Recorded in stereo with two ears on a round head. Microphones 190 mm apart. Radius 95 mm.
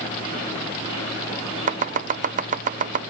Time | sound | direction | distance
1.7 | chopping | 35° right (ahead or behind) | ?